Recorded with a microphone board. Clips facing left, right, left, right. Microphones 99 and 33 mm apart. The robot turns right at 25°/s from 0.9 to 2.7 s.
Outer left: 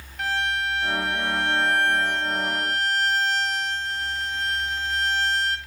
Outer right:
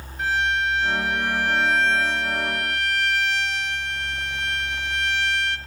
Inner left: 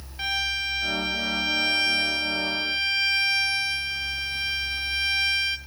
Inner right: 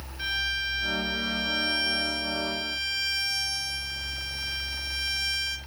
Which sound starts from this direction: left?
A violin, at 0.2 s.